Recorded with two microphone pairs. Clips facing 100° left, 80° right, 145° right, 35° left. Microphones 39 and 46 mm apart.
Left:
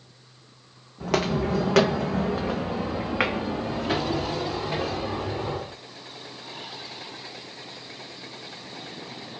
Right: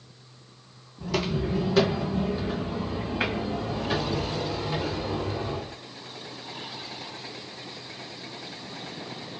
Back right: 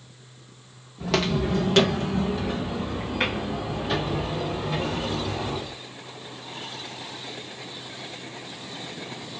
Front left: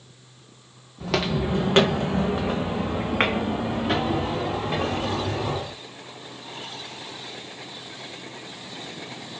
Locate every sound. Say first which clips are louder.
1.0 s footsteps: left 4 dB, even; 125° left, 0.7 m; by 5.8 s 60° left, 3 m